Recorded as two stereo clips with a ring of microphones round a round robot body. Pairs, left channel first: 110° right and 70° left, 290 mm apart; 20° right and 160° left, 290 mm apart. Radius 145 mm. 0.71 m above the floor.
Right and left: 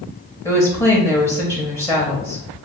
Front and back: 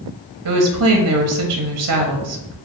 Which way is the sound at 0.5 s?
170° left.